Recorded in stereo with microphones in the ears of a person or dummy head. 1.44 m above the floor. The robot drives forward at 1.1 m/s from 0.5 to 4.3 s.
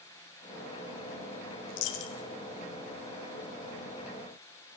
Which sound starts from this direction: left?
A dropped coin, at 1.7 s.